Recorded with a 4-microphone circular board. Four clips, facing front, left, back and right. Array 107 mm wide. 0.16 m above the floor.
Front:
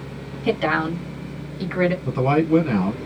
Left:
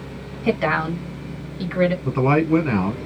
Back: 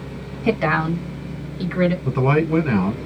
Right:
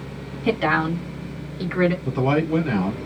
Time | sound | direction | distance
0.4 | a woman speaking | 150° left | 1.7 m
2.0 | a man speaking | 120° left | 1.5 m